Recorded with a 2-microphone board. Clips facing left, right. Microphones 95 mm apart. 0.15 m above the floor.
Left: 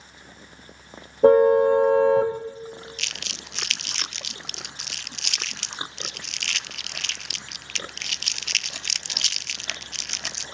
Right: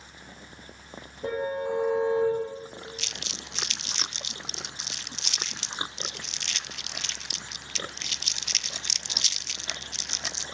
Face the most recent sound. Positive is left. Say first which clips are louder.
# left 1 dB
turn(degrees=70)  # may be behind; listen again after turning